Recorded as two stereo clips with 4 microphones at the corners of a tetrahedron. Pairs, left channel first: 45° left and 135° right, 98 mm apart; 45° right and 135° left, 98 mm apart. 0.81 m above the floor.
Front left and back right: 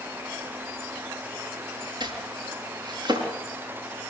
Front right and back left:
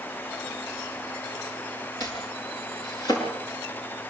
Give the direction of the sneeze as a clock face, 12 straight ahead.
No sneeze in this recording.